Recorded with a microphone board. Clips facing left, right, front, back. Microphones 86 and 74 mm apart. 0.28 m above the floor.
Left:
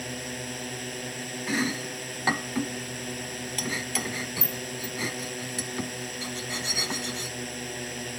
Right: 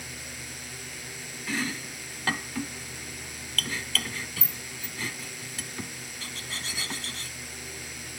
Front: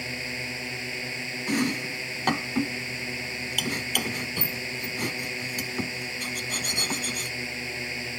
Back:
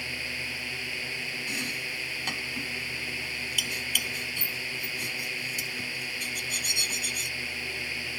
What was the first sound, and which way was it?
A drone, 65° left.